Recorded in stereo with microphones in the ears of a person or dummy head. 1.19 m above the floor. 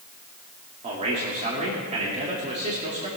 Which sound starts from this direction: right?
A man speaking, at 0.8 s.